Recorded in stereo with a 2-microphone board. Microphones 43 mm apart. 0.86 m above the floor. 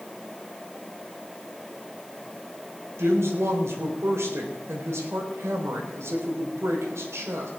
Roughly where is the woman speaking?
Right.